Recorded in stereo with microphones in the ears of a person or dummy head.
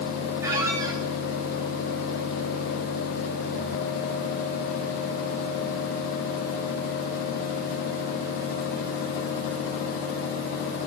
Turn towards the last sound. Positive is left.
turn(degrees=-20)  # may be behind; listen again after turning